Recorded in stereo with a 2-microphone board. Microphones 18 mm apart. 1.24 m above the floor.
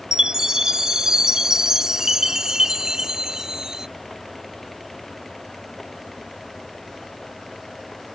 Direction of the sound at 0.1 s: 40° right (ahead or behind).